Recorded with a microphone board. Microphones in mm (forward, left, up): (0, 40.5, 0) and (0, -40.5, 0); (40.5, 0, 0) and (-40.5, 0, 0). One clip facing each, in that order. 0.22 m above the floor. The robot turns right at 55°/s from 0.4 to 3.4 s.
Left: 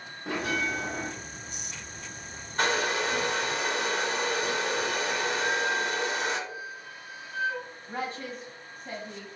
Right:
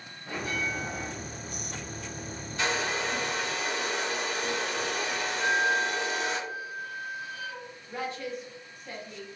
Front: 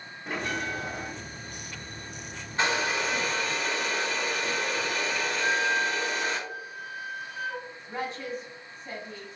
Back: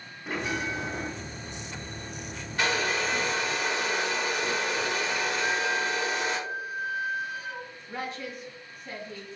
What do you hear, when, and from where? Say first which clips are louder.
0.3 s a bell: left 3 dB, back 1 dB; 90° left, 0.7 m; by 1.1 s 130° left, 0.7 m
2.6 s a hair dryer: left 3 dB, even; 60° left, 1.3 m; by 6.4 s 105° left, 1.3 m
5.4 s a flute: right 6 dB, front 4 dB; 25° left, 1.3 m
7.9 s a woman speaking: even, front 3 dB; 50° left, 1.8 m